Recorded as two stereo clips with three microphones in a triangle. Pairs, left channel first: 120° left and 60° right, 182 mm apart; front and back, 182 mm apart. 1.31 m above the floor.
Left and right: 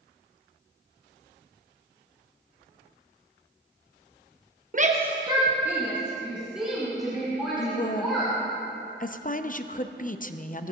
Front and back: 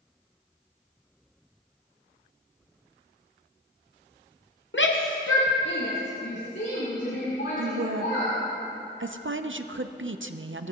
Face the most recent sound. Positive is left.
turn(degrees=170)